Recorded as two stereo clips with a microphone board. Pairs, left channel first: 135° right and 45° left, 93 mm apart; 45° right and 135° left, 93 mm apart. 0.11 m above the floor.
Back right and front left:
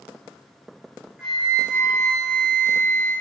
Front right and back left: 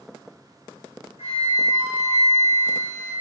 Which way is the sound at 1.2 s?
35° right.